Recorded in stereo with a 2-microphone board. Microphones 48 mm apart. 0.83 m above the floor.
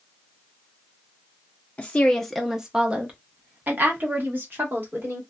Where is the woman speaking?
25° left (ahead or behind), 0.6 m; by 5.2 s 55° right (ahead or behind), 1.7 m.